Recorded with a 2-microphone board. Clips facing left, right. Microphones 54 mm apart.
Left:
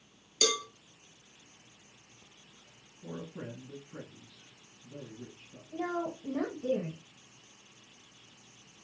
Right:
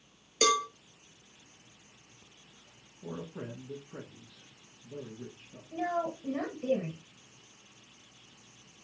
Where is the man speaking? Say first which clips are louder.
Right 1 dB; 60° right (ahead or behind), 2.0 m.